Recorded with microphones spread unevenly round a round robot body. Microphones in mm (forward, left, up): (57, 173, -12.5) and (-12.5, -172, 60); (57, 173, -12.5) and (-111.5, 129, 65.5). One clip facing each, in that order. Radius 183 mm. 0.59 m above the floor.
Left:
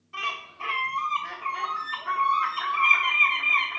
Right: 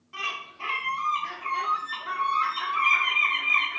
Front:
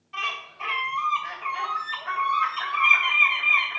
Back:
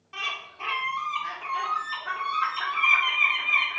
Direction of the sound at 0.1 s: 170° left.